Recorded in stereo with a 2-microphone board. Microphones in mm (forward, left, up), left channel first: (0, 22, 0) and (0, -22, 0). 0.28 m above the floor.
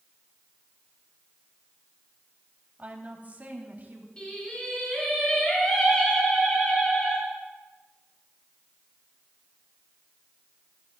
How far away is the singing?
About 6.5 m.